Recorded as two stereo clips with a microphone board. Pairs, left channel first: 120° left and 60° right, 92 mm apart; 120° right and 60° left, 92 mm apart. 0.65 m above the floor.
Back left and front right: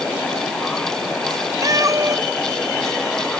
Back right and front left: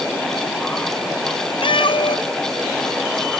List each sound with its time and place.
1.6 s a cat meowing: 110° right